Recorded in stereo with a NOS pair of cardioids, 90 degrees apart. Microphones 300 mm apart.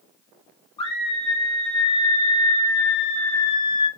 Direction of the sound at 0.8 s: 15° left.